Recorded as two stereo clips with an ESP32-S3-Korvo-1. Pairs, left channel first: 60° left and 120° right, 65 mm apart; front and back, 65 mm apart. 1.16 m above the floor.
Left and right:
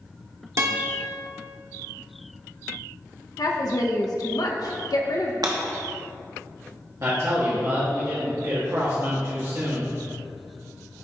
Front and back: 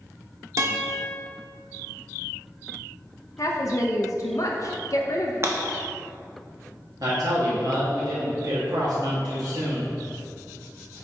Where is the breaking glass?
130° right, 1.1 m.